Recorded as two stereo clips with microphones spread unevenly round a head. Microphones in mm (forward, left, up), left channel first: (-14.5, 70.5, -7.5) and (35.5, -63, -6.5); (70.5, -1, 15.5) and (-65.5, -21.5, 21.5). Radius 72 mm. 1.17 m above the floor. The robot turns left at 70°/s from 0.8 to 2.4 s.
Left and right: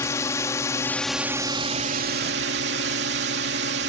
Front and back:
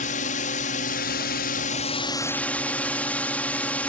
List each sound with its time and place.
0.0 s a drone: 40° left; by 3.9 s 70° right